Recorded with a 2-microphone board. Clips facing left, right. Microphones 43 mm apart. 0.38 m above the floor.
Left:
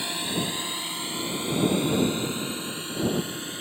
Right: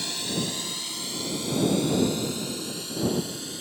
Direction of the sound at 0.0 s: 20° left (ahead or behind).